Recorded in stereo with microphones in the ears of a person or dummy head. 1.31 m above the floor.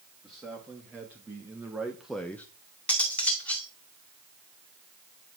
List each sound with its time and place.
0.2 s a man speaking: 15° right (ahead or behind), 2.5 m; by 2.5 s 15° left (ahead or behind), 0.7 m
2.9 s cutlery clinking: 10° left (ahead or behind), 1.9 m